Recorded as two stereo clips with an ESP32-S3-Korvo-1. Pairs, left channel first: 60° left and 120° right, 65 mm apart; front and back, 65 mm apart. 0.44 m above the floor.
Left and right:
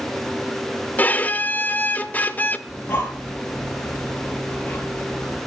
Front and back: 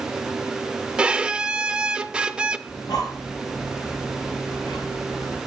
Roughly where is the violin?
Left.